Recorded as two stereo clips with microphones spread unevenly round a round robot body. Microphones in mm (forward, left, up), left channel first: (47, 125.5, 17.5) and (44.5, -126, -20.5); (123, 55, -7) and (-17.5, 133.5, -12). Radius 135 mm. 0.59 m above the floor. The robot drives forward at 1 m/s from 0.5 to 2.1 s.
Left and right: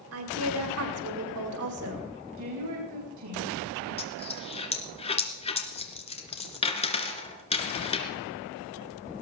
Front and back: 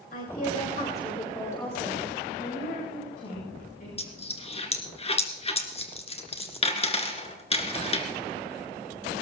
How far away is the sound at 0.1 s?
About 2.5 m.